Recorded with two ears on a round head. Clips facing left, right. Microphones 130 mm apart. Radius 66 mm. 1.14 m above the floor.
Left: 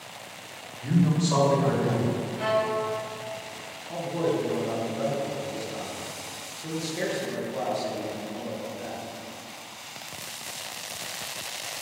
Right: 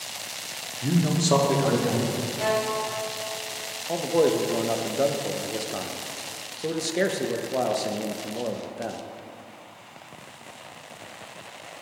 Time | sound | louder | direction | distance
0.8 | a man speaking | even | 40° right (ahead or behind) | 1.3 m
2.4 | a violin | even | 35° right (ahead or behind) | 1.3 m
3.9 | a man speaking | right 5 dB | 60° right (ahead or behind) | 0.6 m